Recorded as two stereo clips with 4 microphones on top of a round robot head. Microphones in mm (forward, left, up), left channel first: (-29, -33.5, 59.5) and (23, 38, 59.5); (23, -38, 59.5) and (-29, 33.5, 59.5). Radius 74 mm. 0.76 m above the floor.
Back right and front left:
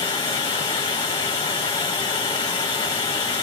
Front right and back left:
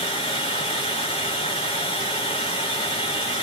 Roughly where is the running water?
Right.